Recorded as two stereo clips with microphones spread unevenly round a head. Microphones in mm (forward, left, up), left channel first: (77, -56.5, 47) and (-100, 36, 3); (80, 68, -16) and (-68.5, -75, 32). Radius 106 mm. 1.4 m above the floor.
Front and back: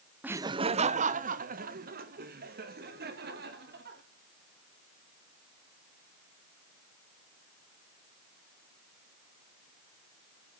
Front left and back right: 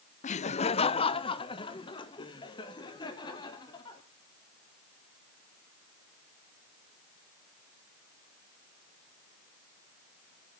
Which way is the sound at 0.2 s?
80° left.